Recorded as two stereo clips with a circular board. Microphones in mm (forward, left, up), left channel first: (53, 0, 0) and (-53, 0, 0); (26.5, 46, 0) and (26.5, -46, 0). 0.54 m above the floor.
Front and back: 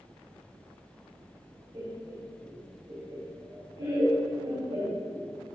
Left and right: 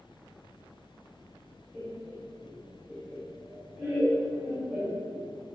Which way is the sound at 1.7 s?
Straight behind.